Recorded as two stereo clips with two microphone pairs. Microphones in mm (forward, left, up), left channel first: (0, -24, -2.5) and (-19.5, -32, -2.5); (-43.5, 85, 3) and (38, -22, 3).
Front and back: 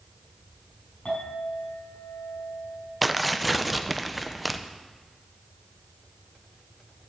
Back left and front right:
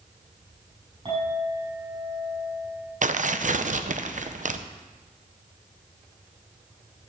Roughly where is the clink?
Ahead.